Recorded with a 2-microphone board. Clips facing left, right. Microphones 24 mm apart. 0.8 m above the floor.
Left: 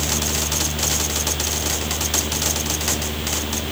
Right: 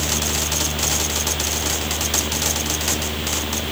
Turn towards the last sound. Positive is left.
No sound to turn to.